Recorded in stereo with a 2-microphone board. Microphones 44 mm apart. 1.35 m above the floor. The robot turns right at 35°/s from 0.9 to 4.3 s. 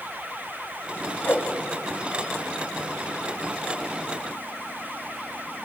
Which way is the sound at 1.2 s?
45° left (ahead or behind).